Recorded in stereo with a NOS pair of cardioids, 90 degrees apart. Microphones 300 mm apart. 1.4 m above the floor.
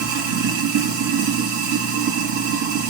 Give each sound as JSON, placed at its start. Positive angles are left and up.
{"t": 0.0, "sound": "running water", "azimuth_deg": -70, "distance_m": 2.5}